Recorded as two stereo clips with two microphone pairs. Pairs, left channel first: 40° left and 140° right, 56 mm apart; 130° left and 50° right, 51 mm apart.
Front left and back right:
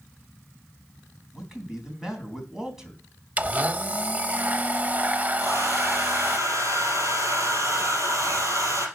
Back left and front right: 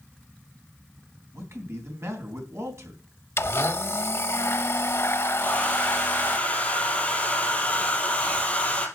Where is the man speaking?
60° right, 3.5 m.